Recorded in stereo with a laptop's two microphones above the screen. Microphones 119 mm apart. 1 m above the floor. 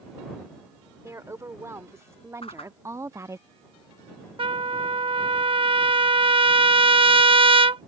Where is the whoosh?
60° left (ahead or behind).